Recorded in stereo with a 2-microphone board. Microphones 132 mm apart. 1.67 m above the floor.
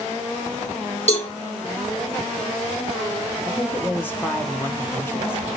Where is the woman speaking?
15° left (ahead or behind), 1.0 m.